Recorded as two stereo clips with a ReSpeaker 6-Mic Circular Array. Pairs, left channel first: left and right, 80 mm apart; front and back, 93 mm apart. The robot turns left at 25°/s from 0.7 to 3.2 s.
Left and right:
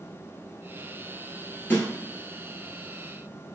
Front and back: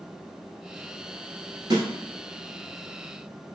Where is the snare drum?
150° left, 1.1 m; by 1.9 s 145° left, 1.1 m.